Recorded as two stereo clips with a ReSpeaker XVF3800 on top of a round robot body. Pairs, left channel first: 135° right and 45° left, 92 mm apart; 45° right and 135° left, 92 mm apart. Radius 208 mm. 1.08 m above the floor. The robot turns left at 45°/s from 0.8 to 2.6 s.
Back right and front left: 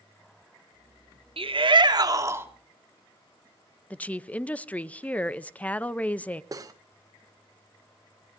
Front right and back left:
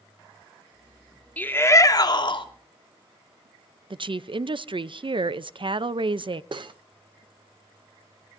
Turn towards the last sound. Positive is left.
turn(degrees=100)